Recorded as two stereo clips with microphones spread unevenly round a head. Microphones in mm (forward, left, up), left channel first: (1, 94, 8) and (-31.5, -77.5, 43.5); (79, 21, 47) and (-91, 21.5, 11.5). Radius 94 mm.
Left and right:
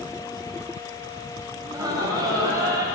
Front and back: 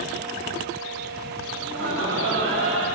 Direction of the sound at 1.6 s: 170° right.